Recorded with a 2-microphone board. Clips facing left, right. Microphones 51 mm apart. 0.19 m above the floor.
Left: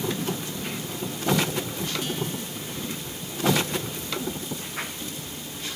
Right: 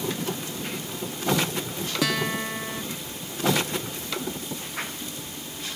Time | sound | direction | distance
2.0 | a guitar | 90° right | ?